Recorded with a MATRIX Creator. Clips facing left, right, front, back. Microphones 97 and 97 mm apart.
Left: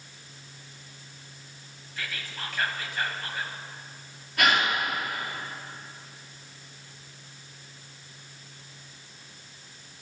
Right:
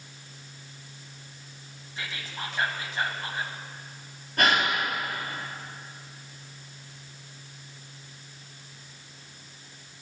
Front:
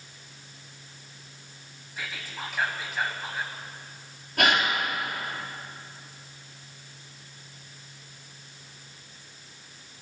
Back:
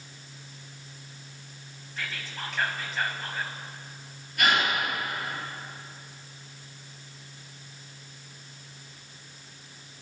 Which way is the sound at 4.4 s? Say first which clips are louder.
Even, front 1 dB; 35° right.